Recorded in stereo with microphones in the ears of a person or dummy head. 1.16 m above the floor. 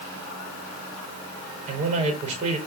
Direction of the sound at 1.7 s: 35° right (ahead or behind).